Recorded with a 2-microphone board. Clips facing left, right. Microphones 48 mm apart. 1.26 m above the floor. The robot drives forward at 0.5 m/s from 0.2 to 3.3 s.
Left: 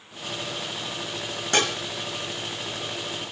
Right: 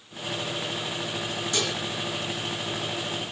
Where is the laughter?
No laughter in this recording.